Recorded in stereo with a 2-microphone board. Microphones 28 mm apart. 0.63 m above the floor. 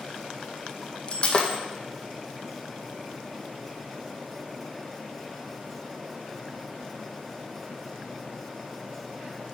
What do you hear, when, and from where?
1.1 s breaking glass: 40° left (ahead or behind), 1.6 m